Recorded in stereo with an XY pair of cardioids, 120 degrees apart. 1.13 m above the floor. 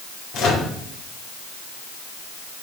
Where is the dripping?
I don't hear dripping.